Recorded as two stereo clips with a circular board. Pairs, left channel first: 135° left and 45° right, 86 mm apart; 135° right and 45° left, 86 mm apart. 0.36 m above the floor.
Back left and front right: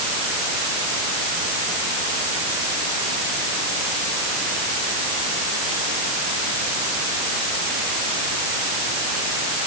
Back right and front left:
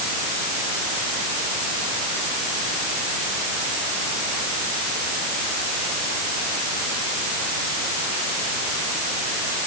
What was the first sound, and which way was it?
Only background noise.